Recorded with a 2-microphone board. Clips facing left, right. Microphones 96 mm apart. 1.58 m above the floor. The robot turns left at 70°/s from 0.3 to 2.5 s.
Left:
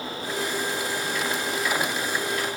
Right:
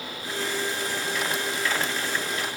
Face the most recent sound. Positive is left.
No sound to turn to.